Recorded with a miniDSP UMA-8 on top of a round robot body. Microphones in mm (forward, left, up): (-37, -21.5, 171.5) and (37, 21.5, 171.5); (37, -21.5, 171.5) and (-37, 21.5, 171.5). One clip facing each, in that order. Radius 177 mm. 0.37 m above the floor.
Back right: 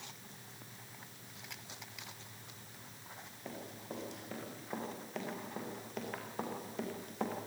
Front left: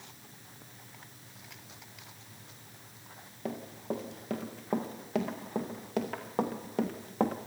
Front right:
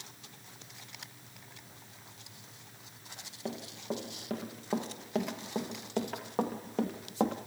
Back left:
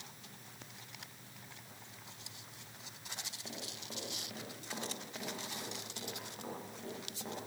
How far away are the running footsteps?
About 3.5 m.